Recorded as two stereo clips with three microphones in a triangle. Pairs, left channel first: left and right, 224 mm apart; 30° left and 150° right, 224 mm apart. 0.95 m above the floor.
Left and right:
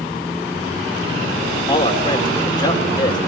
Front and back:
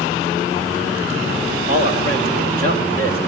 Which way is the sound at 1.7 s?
160° left.